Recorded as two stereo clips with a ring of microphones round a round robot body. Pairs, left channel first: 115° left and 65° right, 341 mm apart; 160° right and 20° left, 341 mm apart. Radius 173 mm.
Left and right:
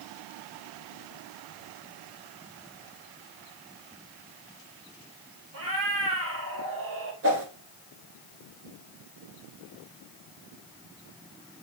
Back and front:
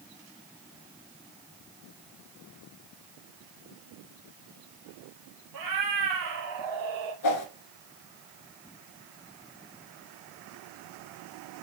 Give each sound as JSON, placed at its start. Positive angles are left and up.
{"t": 5.5, "sound": "a cat meowing", "azimuth_deg": -15, "distance_m": 2.0}
{"t": 7.2, "sound": "a whoosh", "azimuth_deg": -120, "distance_m": 1.2}